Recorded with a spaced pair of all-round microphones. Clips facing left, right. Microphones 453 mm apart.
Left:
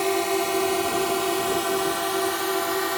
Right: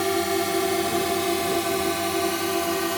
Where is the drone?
35° right (ahead or behind); by 3.0 s 50° right (ahead or behind).